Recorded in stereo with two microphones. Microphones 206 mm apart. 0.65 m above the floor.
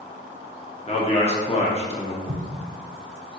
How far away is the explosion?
About 0.5 m.